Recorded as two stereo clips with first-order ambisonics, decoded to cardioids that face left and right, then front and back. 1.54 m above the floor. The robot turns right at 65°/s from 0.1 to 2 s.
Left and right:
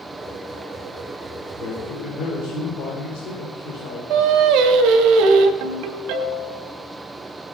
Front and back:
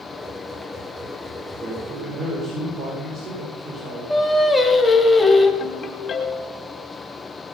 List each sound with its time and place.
1.6 s a man speaking: 105° left, 6 m; by 4.0 s 135° left, 6 m
4.1 s singing: 85° right, 2 m
5.6 s a ringtone: 65° right, 3.5 m